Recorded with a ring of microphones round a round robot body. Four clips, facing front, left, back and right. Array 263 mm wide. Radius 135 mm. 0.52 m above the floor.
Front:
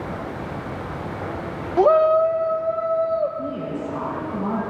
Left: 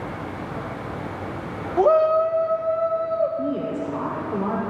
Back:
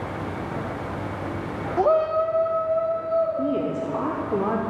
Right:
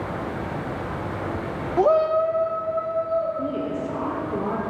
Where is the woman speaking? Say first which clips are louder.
Left 1 dB, back 3 dB; 175° left, 1.9 m.